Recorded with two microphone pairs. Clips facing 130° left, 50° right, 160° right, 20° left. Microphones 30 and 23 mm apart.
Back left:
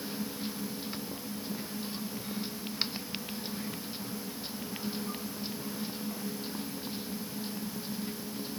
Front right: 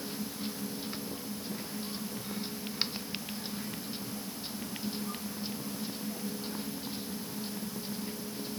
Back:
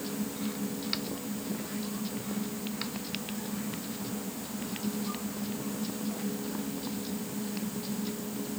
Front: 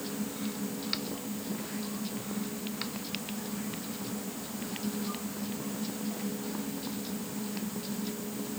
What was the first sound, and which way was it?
Only background noise.